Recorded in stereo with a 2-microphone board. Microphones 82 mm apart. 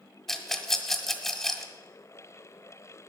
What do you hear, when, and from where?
0.3 s a rattle: 5° left (ahead or behind), 1.4 m